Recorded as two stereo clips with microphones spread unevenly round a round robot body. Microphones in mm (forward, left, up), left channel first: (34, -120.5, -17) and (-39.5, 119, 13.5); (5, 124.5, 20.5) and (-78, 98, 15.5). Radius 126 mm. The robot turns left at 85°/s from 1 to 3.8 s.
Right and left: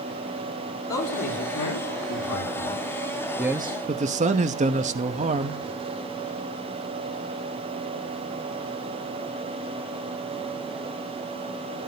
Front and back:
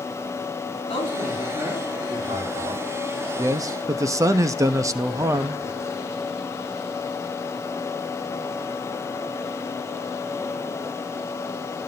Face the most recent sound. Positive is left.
turn(degrees=165)